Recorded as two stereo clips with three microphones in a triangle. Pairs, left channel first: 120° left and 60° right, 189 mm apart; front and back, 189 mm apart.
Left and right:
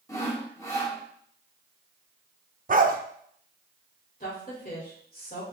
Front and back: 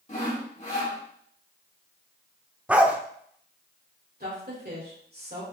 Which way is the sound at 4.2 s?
155° left.